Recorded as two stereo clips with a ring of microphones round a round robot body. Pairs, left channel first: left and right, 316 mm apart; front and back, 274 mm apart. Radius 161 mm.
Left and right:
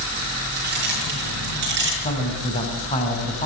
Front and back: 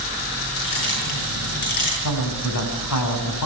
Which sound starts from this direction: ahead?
A man speaking, at 2.0 s.